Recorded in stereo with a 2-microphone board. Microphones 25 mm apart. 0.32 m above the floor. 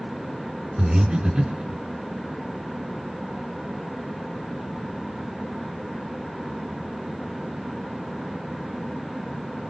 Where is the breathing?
25° right (ahead or behind), 3.5 m.